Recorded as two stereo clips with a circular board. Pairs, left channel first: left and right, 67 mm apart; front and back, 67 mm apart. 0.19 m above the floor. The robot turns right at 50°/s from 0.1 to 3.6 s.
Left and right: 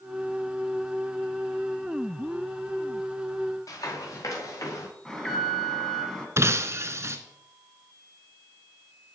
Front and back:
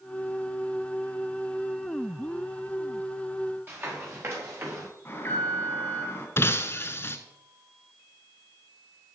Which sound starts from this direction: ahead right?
Breaking glass, at 6.4 s.